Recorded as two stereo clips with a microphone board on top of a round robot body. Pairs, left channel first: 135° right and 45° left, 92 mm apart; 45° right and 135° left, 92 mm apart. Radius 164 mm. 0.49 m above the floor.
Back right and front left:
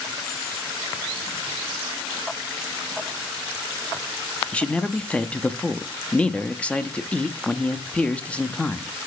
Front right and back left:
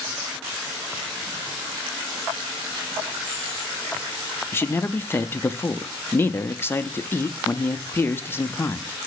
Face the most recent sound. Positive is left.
turn(degrees=-70)